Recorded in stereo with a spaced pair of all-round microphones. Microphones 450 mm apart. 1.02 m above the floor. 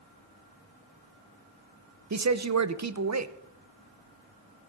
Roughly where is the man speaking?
Right.